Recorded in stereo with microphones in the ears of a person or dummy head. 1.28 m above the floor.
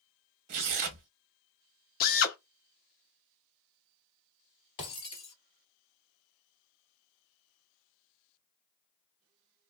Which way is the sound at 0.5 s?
40° right (ahead or behind).